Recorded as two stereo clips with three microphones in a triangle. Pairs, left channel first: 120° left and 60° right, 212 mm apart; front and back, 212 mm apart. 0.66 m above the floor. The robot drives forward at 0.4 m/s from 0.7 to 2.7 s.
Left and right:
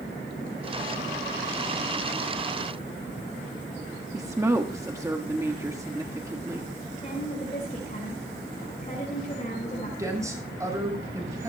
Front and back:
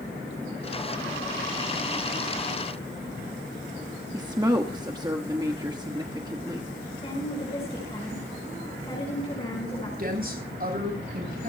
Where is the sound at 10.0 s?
135° right, 8 m.